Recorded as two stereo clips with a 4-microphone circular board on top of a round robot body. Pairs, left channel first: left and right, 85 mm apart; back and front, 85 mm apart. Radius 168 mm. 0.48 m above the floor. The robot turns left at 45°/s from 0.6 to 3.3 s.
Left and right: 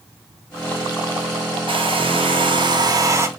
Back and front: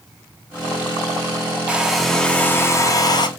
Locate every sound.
1.7 s a hair dryer: 75° right, 1.3 m; by 3.3 s 150° right, 1.3 m